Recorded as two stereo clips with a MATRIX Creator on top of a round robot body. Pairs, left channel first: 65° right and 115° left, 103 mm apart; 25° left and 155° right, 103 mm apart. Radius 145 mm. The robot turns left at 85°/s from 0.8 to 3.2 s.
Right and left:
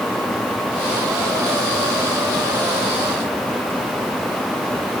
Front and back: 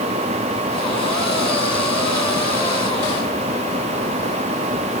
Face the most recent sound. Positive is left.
No sound to turn to.